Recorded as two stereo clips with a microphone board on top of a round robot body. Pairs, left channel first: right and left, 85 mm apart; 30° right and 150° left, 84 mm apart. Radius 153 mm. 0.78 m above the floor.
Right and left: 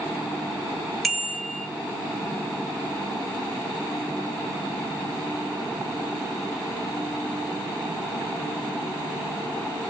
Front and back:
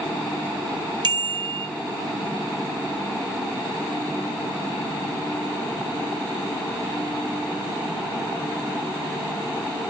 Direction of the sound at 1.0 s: Straight behind.